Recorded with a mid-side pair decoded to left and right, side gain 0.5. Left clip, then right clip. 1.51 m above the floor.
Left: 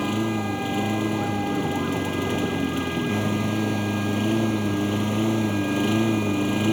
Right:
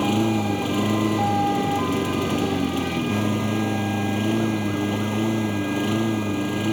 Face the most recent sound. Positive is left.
turn(degrees=10)